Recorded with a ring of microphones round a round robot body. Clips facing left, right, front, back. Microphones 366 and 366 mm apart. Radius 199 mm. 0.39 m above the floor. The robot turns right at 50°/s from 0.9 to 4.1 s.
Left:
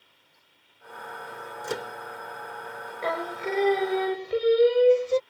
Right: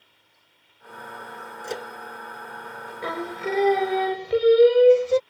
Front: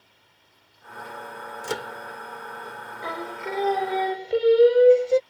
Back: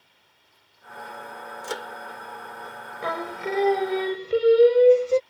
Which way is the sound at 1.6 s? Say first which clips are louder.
Even, front 3 dB; 25° left.